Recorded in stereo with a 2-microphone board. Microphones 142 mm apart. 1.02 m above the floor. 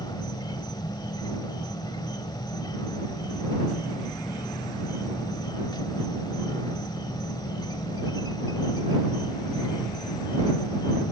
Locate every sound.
0.0 s an insect: 30° left (ahead or behind)